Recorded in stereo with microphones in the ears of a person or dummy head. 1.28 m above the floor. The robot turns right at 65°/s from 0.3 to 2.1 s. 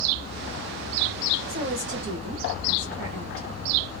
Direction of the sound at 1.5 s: 150° right.